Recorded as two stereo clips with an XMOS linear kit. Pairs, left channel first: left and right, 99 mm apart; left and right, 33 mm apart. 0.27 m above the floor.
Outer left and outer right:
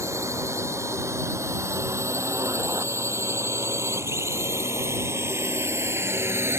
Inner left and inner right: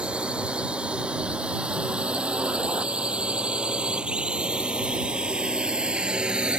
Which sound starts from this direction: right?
A drone, at 0.0 s.